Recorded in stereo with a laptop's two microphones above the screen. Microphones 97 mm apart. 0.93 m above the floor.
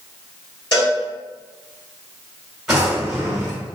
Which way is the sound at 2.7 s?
5° right (ahead or behind).